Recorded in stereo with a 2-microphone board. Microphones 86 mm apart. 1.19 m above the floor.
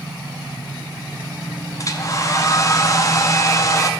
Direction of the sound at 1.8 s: 40° left (ahead or behind).